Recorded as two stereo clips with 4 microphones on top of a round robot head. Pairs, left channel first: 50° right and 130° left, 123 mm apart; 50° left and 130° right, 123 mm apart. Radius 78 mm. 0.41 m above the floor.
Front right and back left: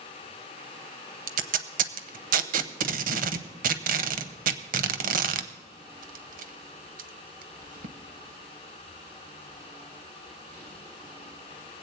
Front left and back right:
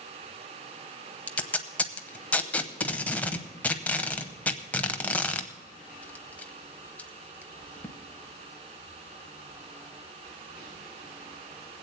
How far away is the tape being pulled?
About 0.7 m.